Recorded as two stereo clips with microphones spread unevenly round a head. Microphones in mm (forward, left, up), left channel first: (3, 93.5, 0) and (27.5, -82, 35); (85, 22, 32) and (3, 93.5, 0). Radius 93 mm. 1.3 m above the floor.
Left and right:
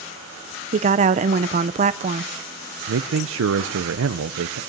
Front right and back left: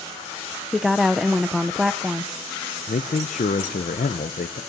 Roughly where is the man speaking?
Right.